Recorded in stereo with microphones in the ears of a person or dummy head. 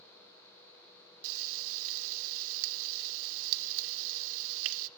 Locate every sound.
1.2 s frying: 75° right (ahead or behind), 1.2 m